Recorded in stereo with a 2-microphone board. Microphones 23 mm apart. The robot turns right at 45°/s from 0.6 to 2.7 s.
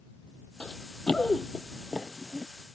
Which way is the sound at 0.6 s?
55° left (ahead or behind).